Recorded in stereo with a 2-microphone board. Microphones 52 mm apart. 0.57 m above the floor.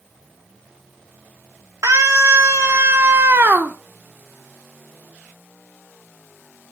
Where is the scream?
70° right (ahead or behind), 1.7 m; by 3.8 s 40° right (ahead or behind), 1.0 m.